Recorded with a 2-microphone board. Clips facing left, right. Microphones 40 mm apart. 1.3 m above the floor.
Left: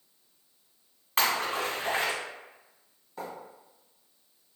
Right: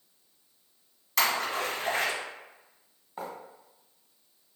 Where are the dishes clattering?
No dishes clattering in this recording.